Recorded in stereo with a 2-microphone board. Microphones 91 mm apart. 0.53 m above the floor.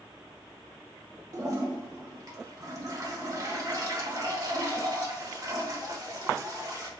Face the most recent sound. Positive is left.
turn(degrees=-40)  # may be behind; listen again after turning